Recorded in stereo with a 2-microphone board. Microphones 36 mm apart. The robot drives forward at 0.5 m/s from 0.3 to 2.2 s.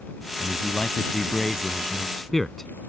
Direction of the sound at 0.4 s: 15° left (ahead or behind).